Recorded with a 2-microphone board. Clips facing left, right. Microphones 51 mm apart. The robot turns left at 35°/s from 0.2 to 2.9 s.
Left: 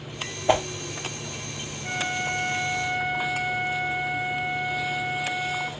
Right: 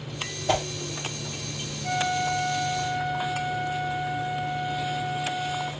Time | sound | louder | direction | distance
0.5 | a whoosh | left 4 dB | 20° left (ahead or behind) | 0.7 m
1.8 | a flute | right 2 dB | 155° left | 2.5 m